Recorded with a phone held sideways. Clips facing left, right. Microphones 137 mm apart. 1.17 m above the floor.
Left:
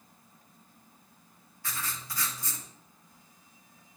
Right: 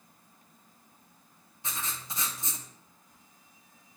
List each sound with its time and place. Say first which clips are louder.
1.6 s writing: even; 20° right (ahead or behind), 0.9 m